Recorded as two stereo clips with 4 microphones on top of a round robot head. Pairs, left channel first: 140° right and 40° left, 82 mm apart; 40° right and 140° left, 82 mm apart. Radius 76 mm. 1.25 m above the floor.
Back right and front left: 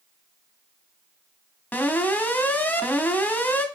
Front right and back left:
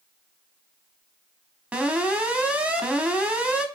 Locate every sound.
1.7 s an alarm: 170° right, 1.1 m